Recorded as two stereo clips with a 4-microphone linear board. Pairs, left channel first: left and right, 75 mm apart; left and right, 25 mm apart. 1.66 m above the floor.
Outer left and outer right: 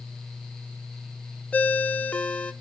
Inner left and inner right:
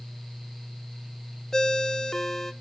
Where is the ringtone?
20° left (ahead or behind), 0.5 m.